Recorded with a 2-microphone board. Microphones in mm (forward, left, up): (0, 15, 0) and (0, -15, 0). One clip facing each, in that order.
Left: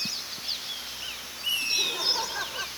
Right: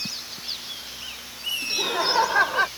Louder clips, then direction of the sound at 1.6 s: Right 6 dB; 40° right (ahead or behind).